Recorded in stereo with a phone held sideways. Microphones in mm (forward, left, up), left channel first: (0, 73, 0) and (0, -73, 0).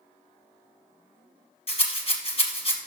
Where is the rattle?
45° left (ahead or behind), 0.8 m.